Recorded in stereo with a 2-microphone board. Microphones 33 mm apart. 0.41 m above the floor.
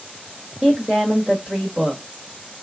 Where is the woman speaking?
15° right (ahead or behind), 1.4 m.